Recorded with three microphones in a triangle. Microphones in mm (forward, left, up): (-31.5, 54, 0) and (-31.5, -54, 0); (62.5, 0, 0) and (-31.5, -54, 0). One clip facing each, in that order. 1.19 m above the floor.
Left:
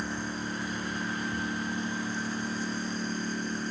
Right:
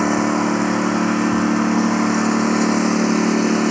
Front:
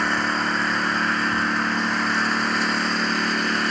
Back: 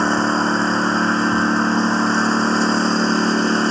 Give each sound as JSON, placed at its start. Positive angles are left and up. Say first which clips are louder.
{"t": 0.0, "sound": "a lawn mower", "louder": "right 18 dB, back 6 dB", "azimuth_deg": -90}